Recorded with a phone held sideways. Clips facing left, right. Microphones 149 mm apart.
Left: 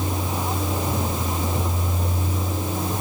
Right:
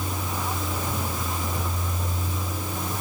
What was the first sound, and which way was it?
A vehicle, 20° left (ahead or behind).